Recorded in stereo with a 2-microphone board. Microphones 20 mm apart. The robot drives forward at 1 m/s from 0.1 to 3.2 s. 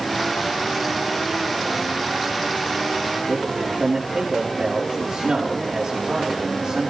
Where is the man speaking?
50° right (ahead or behind), 3 m.